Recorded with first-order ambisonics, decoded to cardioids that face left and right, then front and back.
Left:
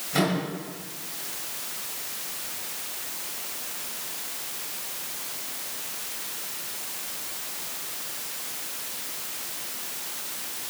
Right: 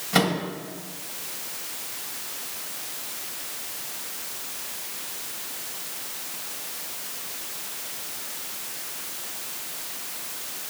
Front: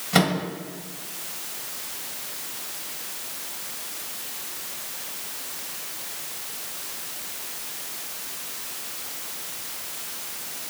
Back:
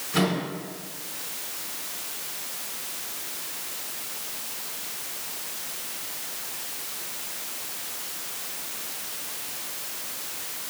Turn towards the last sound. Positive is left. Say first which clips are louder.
# right 3 dB, front 4 dB
turn(degrees=-30)